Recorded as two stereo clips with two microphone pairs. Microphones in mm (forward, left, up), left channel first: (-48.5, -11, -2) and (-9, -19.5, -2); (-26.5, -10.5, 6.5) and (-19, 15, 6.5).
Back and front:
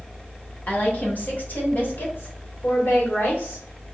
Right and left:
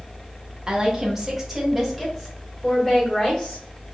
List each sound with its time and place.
0.7 s a woman speaking: 135° left, 1.3 m; by 3.7 s 170° right, 2 m